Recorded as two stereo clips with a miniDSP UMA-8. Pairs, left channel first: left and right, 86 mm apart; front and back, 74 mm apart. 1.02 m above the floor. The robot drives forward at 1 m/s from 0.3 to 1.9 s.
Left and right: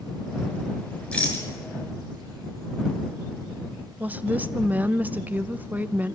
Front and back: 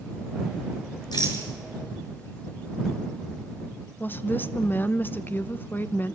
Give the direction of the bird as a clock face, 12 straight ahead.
I don't hear a bird.